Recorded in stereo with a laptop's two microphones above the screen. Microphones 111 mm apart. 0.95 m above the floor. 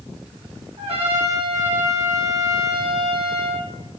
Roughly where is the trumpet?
Right.